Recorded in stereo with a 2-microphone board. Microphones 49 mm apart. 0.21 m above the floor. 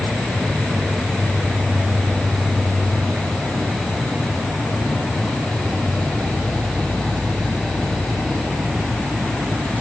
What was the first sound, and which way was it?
An insect, 35° left (ahead or behind).